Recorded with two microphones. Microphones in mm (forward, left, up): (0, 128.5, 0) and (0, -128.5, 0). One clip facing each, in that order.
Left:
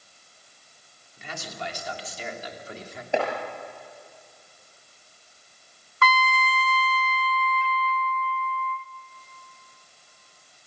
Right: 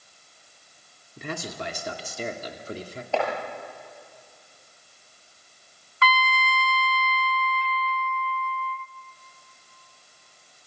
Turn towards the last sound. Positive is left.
turn(degrees=50)  # may be behind; listen again after turning